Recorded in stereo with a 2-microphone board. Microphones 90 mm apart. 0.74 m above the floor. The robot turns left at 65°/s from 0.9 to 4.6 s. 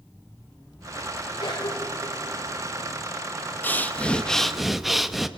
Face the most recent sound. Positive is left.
turn(degrees=0)  # may be behind; listen again after turning